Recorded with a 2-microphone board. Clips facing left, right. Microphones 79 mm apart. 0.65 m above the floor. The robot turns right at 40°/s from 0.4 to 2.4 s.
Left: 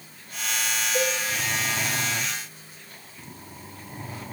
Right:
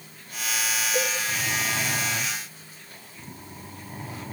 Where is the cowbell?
35° right (ahead or behind), 5 m; by 1.2 s 25° right (ahead or behind), 5 m.